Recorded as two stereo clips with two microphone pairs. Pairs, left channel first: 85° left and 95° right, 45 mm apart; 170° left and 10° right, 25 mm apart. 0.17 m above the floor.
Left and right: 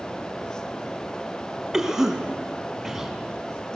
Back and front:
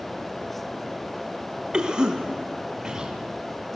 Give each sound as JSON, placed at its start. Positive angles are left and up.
{"t": 1.7, "sound": "a cough", "azimuth_deg": -25, "distance_m": 1.6}